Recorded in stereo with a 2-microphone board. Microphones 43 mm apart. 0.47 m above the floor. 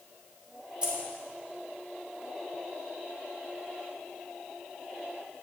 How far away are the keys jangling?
About 2.5 m.